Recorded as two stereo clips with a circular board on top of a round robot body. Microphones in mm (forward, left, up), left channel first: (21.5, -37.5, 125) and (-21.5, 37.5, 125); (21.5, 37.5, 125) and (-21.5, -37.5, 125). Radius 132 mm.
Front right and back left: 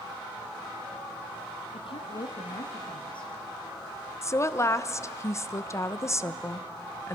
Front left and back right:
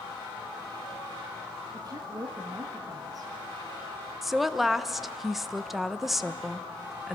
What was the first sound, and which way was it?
A woman speaking, 80° right.